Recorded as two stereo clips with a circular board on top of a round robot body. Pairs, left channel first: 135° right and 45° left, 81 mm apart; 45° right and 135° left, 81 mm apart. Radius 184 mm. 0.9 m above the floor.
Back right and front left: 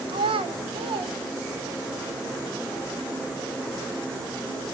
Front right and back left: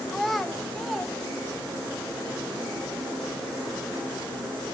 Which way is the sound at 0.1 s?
40° left.